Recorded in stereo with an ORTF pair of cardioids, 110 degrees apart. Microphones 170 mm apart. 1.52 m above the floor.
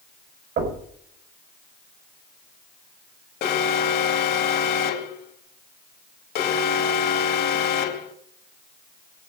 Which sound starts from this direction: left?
An alarm, at 3.4 s.